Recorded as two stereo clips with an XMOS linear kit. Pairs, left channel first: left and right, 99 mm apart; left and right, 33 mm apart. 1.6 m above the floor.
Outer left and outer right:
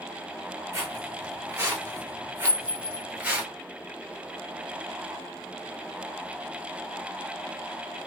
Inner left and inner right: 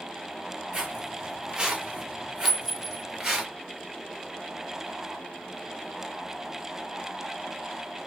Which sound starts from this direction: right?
Footsteps, at 0.7 s.